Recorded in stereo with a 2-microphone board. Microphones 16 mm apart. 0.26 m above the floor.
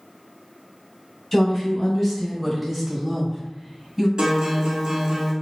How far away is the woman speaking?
About 1.7 m.